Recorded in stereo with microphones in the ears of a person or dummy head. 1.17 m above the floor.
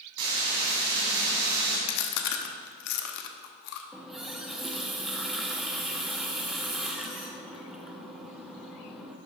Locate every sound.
0.2 s frying: 70° right (ahead or behind), 2.5 m
1.9 s chewing: 60° left (ahead or behind), 0.8 m
3.9 s a running tap: centre (ahead or behind), 0.8 m